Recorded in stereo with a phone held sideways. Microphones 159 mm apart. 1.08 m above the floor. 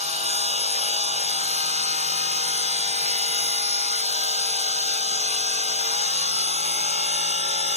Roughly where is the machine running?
Right.